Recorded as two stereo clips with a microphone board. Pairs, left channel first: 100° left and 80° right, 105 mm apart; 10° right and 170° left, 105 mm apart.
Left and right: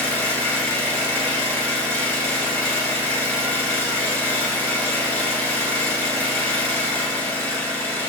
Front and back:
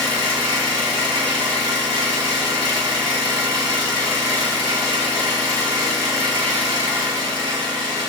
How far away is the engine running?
About 1.3 m.